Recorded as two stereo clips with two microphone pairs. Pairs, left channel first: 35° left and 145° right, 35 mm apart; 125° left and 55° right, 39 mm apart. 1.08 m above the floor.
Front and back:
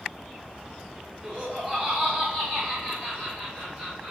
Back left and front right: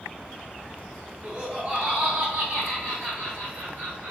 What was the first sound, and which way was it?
Laughter, 105° right.